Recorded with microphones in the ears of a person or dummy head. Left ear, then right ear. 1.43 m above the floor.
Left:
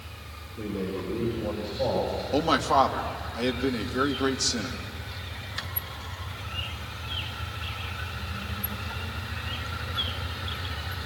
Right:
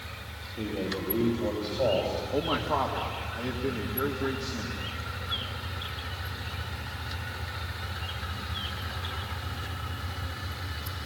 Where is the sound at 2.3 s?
70° left (ahead or behind), 2.5 m.